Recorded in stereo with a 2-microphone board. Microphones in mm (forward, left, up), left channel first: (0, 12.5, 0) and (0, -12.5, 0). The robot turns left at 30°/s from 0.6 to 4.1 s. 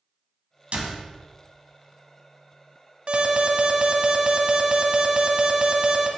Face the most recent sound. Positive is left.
turn(degrees=-140)